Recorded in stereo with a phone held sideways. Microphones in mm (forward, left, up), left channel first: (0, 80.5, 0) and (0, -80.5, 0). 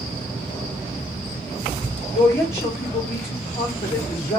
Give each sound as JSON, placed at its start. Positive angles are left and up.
{"t": 2.1, "sound": "a woman speaking", "side_deg": 35, "distance_m": 3.0}